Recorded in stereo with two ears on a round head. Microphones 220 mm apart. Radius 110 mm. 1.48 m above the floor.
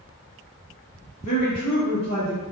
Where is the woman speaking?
80° left, 1.8 m; by 2.4 s 25° left (ahead or behind), 1.4 m.